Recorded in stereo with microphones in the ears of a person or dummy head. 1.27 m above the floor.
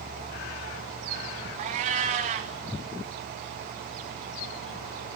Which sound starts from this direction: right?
A cat meowing, at 1.6 s.